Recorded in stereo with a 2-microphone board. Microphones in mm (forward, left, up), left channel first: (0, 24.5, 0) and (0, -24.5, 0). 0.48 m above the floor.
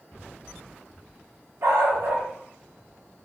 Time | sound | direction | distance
1.6 | a dog barking | 70° right (ahead or behind) | 0.9 m